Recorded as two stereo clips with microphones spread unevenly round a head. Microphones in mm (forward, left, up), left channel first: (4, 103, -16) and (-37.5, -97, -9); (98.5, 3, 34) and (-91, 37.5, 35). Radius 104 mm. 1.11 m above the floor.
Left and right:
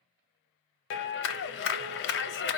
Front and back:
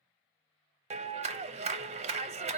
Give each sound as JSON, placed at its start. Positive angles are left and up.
{"t": 0.9, "sound": "a clap", "azimuth_deg": 110, "distance_m": 0.5}